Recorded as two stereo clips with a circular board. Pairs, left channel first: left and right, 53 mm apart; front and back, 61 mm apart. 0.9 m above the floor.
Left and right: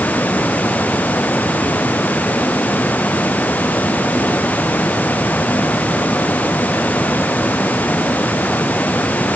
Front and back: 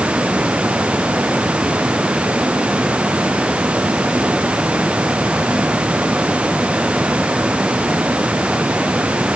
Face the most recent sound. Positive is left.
No sound to turn to.